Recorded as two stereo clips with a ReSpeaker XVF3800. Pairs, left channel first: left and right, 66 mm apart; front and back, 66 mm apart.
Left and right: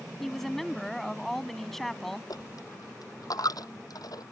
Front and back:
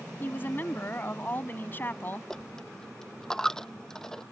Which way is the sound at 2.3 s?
80° left.